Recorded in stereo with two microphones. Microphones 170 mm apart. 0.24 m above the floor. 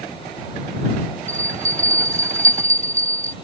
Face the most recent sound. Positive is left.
turn(degrees=-50)  # may be behind; listen again after turning